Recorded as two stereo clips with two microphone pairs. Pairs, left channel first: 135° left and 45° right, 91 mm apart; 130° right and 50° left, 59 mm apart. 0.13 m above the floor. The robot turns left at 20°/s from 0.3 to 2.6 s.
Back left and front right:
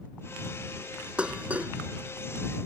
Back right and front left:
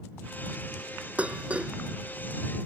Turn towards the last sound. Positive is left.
turn(degrees=-10)